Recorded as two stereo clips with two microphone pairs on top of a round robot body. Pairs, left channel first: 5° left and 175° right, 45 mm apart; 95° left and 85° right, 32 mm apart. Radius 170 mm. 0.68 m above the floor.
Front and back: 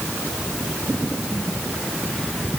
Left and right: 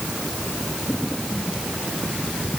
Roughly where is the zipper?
I don't hear a zipper.